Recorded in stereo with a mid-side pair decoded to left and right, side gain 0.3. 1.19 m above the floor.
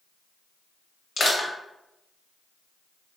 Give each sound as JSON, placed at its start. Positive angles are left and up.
{"t": 1.2, "sound": "crushing", "azimuth_deg": 60, "distance_m": 1.2}